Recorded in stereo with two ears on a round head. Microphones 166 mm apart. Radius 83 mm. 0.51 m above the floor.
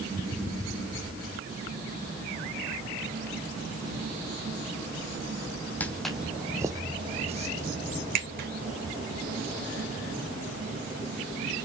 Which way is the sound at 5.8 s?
10° left (ahead or behind).